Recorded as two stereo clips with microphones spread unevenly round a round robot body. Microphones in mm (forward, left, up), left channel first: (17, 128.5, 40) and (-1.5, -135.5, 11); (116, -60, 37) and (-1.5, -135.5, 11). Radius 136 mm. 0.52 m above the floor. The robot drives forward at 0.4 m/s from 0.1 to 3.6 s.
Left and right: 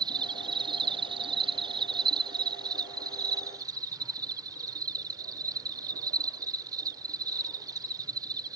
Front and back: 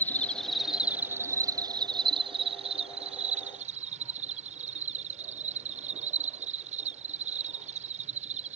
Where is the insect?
55° right; by 8.6 s 165° right.